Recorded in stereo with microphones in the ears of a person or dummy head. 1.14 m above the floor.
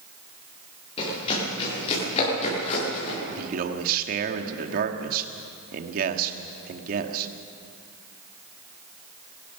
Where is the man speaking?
55° right (ahead or behind), 1.9 m.